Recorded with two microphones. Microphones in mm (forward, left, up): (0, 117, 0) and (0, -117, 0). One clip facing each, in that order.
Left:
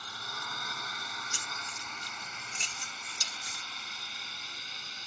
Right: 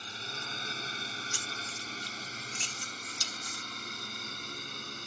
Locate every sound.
0.0 s a drone: 25° right (ahead or behind); by 5.1 s 55° right (ahead or behind)
1.3 s keys jangling: 20° left (ahead or behind)